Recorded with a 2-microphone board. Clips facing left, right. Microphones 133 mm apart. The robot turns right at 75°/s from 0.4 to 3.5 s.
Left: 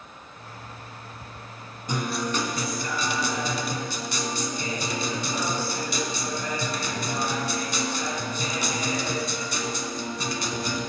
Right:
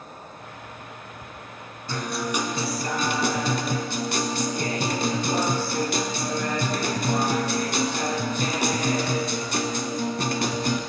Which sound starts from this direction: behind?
A guitar, at 1.9 s.